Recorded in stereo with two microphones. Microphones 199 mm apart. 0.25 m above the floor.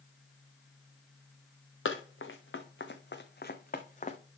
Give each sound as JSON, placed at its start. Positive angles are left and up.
{"t": 1.9, "sound": "running footsteps", "side_deg": 85, "distance_m": 1.5}